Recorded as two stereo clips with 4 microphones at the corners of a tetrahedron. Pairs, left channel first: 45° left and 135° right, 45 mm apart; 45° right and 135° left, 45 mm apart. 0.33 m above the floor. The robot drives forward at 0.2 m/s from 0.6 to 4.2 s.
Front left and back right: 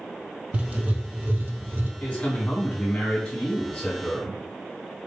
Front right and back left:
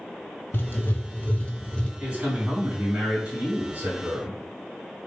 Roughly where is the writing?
Right.